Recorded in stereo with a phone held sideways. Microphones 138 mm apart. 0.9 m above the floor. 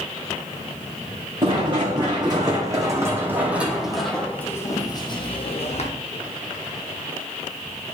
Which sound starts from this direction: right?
Running footsteps, at 1.4 s.